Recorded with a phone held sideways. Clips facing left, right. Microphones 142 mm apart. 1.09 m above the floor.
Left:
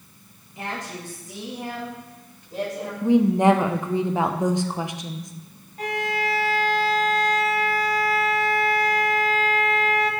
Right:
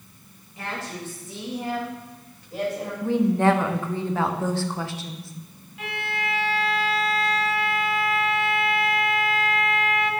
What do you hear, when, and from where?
0.6 s a woman speaking: 20° left (ahead or behind), 1.1 m; by 2.9 s 5° left (ahead or behind), 2.5 m
3.0 s a woman speaking: 15° left (ahead or behind), 0.5 m
5.8 s a violin: 40° left (ahead or behind), 0.6 m